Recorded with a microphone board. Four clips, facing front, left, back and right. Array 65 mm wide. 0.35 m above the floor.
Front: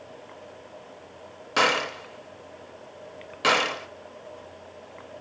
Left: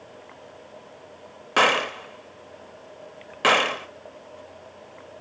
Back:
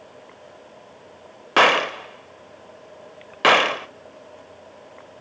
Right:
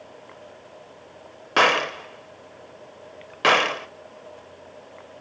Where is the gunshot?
170° right, 0.6 m.